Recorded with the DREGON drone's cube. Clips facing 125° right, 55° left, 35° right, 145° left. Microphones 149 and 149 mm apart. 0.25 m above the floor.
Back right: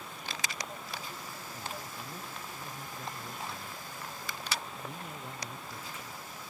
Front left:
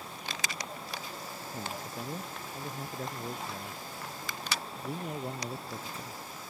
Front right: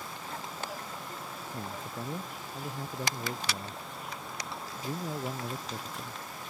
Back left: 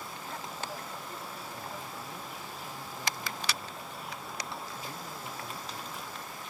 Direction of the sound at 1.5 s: 10° left.